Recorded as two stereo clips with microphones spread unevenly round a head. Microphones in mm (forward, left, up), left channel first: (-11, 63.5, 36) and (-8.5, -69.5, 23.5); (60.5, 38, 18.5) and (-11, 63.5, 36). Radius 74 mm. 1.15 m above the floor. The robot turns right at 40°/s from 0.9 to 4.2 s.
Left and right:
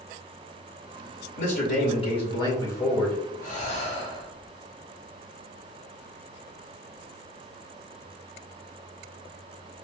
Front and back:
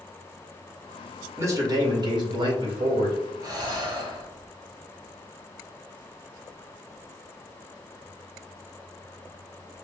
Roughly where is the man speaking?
Left.